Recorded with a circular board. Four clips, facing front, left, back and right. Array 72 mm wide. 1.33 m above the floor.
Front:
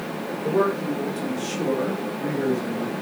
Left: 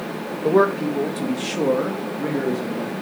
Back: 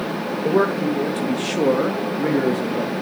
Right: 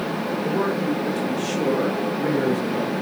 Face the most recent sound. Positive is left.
turn(degrees=-175)